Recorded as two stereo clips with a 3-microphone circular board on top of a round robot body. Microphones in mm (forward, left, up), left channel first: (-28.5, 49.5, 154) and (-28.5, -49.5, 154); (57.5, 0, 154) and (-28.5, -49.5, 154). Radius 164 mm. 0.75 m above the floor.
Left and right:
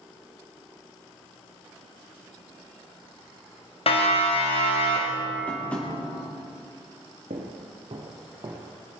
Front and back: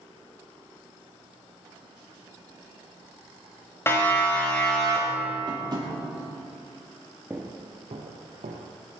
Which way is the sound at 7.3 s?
80° right.